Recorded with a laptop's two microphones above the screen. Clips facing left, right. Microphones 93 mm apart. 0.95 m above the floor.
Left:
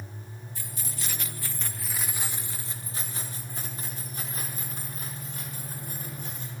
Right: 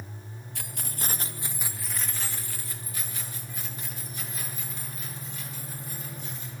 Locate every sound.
0.6 s keys jangling: 70° right (ahead or behind), 0.6 m; by 6.5 s 50° left (ahead or behind), 3 m